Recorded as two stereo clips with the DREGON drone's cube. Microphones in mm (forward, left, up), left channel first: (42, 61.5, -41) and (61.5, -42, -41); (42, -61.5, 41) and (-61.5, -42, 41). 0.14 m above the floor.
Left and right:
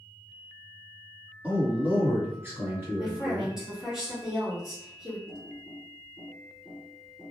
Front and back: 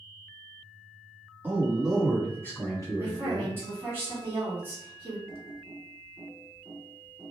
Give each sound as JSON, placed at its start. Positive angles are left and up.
{"t": 1.4, "sound": "a man speaking", "azimuth_deg": -135, "distance_m": 1.2}
{"t": 3.0, "sound": "a woman speaking", "azimuth_deg": -155, "distance_m": 1.5}
{"t": 5.3, "sound": "typing on a keyboard", "azimuth_deg": 55, "distance_m": 2.0}